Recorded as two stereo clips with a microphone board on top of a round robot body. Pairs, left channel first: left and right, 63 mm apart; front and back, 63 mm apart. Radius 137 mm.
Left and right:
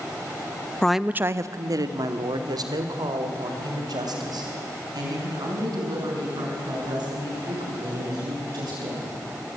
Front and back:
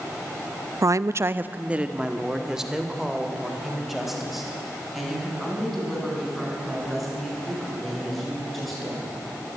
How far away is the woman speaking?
About 0.7 m.